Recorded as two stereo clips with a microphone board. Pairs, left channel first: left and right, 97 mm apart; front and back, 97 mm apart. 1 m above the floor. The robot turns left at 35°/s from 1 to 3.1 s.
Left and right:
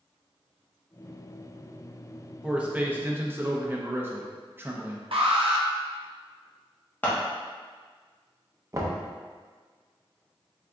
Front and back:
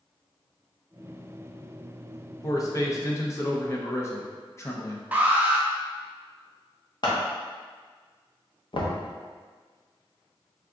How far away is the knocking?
About 0.6 m.